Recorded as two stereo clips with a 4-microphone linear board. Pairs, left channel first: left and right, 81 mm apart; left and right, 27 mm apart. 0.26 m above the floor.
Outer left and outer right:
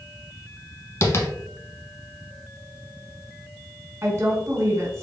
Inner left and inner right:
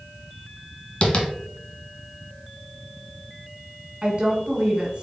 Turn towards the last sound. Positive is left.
turn(degrees=-30)  # may be behind; listen again after turning